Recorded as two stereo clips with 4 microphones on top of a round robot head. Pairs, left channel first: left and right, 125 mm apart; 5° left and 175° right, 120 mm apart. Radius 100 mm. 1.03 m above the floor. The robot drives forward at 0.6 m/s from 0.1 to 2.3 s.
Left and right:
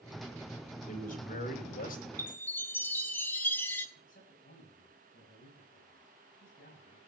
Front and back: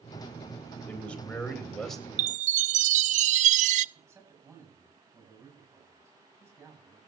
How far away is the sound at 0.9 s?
About 4.5 m.